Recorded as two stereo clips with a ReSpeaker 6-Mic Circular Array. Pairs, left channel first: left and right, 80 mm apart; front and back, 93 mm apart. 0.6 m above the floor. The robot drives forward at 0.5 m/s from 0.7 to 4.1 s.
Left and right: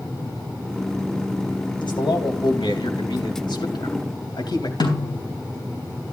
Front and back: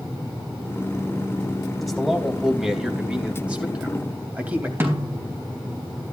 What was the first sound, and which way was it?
A man speaking, 90° left.